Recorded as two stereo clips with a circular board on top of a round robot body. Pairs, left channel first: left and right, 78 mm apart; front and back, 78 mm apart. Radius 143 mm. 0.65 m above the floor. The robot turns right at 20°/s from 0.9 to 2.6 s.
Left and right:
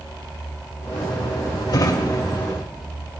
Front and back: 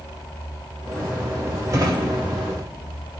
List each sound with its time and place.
1.7 s a drawer: 130° left, 0.6 m; by 3.2 s 150° left, 0.6 m